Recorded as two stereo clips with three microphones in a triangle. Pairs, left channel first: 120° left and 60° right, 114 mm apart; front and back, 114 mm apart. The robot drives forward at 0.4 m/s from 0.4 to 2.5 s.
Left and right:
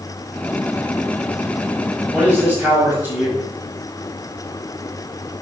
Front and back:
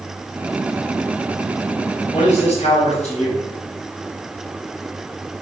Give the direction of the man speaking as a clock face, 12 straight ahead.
11 o'clock.